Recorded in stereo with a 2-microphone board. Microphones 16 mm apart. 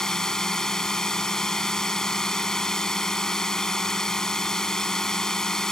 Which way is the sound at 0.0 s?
50° left (ahead or behind).